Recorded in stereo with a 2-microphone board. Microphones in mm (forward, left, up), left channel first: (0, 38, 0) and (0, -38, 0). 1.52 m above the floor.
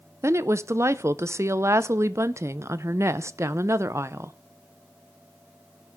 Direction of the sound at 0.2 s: 40° right (ahead or behind).